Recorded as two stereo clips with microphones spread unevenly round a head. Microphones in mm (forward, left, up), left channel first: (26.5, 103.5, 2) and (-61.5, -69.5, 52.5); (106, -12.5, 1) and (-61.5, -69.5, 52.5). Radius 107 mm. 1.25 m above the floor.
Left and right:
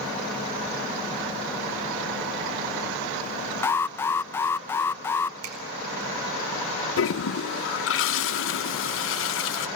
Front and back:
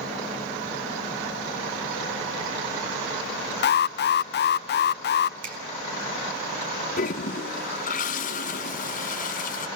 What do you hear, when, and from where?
3.6 s an alarm: 20° right, 0.5 m
5.4 s a finger snap: 135° right, 5 m
7.0 s a toilet flushing: 65° left, 1.4 m